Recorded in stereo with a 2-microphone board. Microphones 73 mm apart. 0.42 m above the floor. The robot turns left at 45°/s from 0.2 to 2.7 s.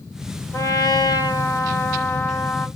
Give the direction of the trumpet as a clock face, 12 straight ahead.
8 o'clock.